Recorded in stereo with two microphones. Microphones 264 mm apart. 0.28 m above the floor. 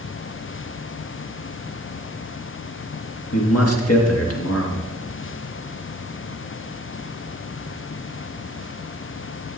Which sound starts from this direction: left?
A man speaking, at 3.3 s.